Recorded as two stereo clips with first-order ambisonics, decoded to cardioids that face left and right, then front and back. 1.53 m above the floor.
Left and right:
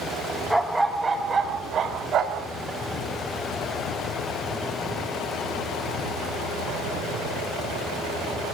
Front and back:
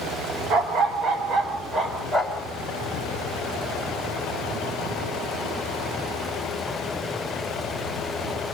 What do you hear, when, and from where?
0.5 s a dog barking: 175° left, 1.3 m; by 2.5 s 100° right, 1.4 m